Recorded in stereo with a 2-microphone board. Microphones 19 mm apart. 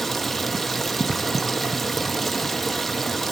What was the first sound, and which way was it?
Running water, 10° left (ahead or behind).